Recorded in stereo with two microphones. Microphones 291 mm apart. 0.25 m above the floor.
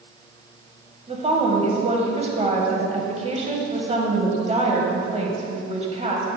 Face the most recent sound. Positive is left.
turn(degrees=-25)  # may be behind; listen again after turning